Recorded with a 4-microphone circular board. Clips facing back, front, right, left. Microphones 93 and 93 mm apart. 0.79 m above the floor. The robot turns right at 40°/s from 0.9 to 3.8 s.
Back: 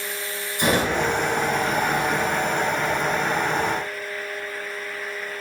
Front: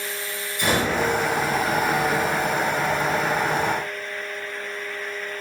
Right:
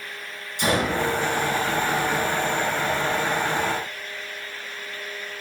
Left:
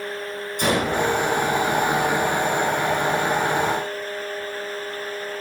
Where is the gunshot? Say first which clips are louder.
Back 1 dB, left 1 dB; 115° left, 4 m; by 0.9 s 120° left, 4 m.